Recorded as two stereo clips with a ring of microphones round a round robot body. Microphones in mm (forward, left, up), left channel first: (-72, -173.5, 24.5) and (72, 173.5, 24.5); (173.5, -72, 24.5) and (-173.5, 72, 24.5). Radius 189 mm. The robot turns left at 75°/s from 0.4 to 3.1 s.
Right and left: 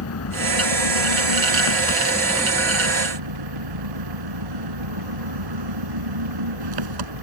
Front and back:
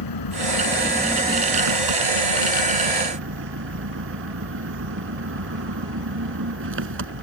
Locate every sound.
0.0 s an engine running: 60° right; by 7.2 s 100° left